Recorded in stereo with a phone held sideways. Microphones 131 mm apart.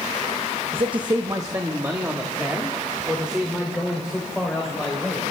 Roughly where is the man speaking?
Right.